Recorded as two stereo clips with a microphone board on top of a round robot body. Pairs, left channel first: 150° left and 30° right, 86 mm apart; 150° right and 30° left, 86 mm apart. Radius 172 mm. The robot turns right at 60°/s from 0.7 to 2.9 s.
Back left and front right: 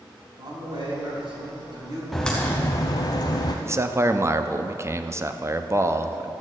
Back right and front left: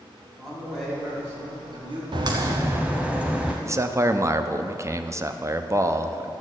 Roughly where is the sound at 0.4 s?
Ahead right.